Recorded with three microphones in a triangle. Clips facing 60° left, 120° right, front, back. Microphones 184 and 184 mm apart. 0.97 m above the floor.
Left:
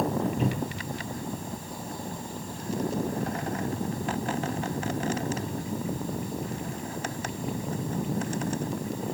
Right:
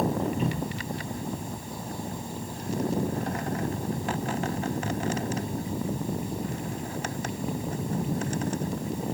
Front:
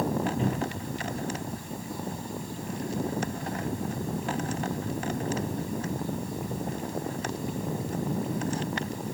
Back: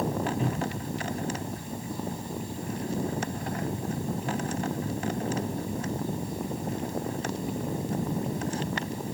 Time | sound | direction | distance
0.4 | a cupboard door | 65° left | 1.8 m